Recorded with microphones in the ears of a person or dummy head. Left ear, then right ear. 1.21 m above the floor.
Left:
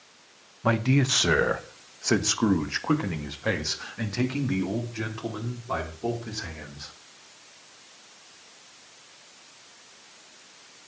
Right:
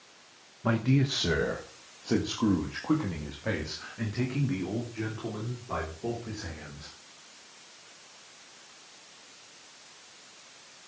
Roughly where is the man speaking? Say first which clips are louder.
Left 4 dB; left.